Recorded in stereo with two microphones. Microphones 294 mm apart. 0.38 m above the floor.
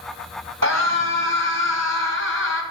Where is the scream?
60° right (ahead or behind), 2 m.